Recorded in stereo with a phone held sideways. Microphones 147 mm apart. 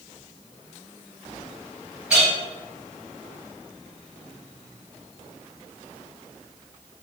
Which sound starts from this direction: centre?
A clink, at 2.1 s.